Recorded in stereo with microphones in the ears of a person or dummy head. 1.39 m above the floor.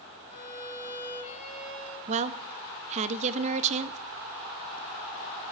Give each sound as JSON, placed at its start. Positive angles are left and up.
{"t": 0.3, "sound": "a violin", "side_deg": 45, "distance_m": 4.0}
{"t": 2.1, "sound": "a woman speaking", "side_deg": -40, "distance_m": 0.7}